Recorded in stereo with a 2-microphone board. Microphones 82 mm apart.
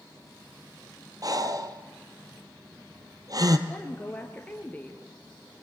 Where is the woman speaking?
20° left (ahead or behind), 1.6 m.